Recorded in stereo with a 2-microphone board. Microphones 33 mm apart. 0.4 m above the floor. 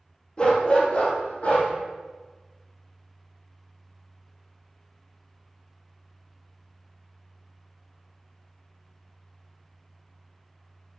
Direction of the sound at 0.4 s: 30° left (ahead or behind).